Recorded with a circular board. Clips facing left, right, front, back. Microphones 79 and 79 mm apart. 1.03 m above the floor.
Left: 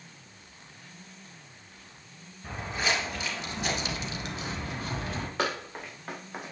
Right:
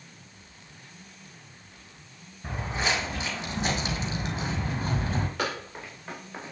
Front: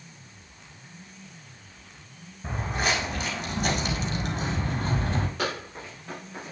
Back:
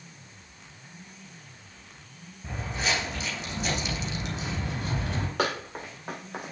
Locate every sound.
2.4 s footsteps: 20° right, 3 m; by 5.3 s 35° right, 1.9 m
5.4 s running footsteps: 155° left, 4 m; by 6.5 s 165° left, 3 m